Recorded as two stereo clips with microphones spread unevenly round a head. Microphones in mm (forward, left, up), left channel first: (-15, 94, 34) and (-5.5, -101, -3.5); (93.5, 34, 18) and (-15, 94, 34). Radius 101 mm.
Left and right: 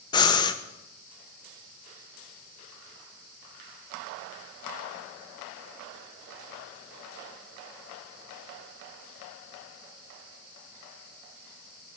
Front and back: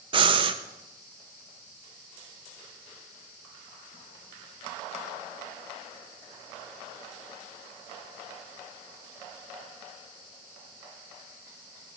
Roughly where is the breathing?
Behind left.